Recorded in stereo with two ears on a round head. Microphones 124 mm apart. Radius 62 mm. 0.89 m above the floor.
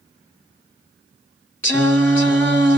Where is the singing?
15° left (ahead or behind), 1.4 m.